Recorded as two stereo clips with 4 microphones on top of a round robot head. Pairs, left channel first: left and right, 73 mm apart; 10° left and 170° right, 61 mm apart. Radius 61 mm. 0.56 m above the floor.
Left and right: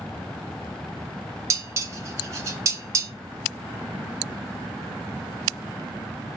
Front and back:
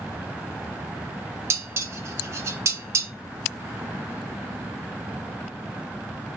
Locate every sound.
1.5 s dishes clattering: 135° right, 0.9 m